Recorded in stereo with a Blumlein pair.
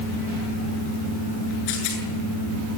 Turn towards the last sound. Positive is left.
turn(degrees=45)